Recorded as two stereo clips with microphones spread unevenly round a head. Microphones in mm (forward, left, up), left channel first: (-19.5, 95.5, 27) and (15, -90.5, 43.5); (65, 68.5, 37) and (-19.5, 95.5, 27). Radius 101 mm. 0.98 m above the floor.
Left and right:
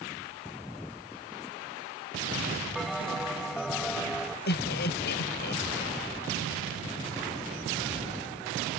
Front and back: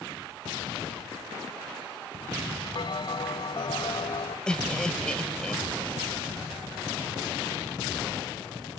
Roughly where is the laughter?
Ahead left.